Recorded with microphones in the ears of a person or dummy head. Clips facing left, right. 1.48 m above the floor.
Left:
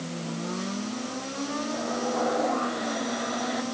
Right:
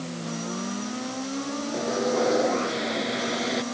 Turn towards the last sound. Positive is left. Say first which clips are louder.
# right 6 dB
turn(degrees=-40)  # may be behind; listen again after turning